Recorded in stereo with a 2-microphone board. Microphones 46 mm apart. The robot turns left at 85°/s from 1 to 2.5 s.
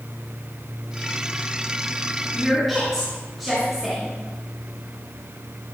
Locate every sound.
2.3 s a woman speaking: 15° right (ahead or behind), 3.5 m; by 4.2 s centre (ahead or behind), 3.5 m